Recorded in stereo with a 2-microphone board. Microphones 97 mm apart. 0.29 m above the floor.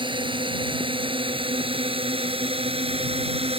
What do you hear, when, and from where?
0.0 s a drone: 55° right (ahead or behind); by 3.6 s 70° right (ahead or behind)